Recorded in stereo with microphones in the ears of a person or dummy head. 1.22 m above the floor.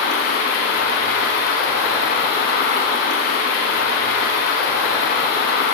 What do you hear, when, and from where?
0.0 s running water: 70° left (ahead or behind), 3.5 m